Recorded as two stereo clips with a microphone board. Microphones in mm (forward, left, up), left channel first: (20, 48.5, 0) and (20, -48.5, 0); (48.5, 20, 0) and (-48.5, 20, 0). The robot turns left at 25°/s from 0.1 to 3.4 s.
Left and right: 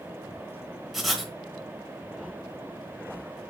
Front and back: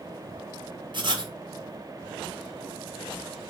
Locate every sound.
0.9 s writing: straight behind, 0.8 m; by 1.3 s 170° left, 0.8 m